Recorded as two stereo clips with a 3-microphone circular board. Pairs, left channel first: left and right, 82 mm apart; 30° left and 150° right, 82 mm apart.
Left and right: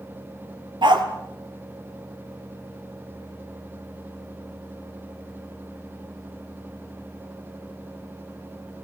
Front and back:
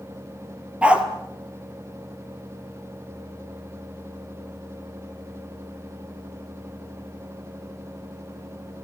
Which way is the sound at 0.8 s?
75° right.